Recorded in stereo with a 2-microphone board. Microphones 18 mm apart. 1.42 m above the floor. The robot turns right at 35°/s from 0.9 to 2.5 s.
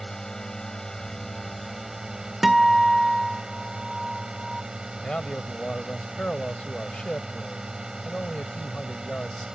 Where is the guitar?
5° right (ahead or behind).